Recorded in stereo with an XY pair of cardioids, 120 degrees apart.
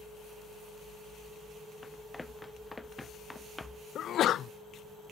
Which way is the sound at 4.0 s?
55° left.